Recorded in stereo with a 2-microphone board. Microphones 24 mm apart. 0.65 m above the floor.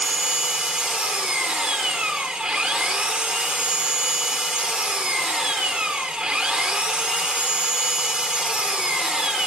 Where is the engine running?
40° right (ahead or behind), 1.0 m.